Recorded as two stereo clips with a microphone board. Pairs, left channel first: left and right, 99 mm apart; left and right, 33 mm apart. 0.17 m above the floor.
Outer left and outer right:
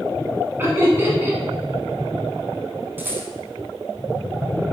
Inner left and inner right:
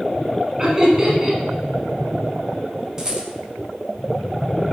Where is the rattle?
20° right (ahead or behind), 1.0 m.